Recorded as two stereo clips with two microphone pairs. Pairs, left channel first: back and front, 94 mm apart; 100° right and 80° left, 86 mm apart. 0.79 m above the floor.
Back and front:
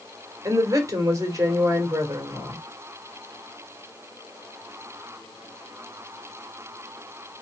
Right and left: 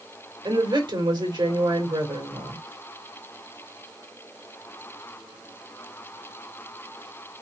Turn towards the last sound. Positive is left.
turn(degrees=55)